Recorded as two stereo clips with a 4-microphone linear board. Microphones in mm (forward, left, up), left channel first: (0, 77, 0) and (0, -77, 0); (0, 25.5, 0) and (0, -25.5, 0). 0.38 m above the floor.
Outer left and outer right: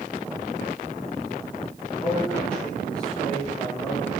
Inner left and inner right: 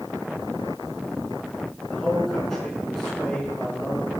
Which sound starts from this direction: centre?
A man speaking, at 1.9 s.